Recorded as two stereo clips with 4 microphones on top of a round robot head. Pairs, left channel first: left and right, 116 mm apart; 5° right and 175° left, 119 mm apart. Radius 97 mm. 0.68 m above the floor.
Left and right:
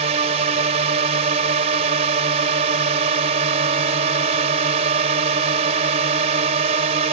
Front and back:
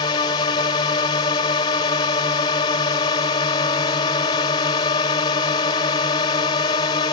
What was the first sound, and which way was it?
A drone, 60° right.